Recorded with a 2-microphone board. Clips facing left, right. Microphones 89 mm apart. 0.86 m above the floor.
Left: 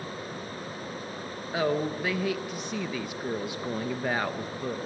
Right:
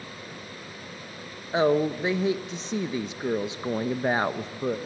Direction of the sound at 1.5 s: 25° right (ahead or behind).